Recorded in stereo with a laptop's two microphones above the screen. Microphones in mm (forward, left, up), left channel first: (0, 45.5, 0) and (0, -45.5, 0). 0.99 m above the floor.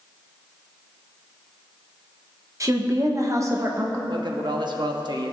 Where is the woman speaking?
35° right (ahead or behind), 0.9 m.